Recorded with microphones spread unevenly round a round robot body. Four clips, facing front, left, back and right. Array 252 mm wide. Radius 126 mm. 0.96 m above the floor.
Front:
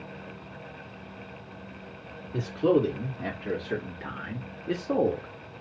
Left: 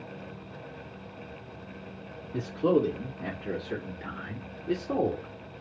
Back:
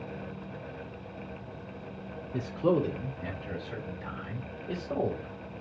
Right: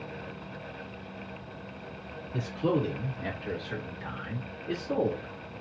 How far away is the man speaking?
About 3 m.